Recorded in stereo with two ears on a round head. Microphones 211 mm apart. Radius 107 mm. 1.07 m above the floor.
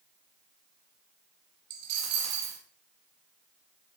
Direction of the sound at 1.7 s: 80° right.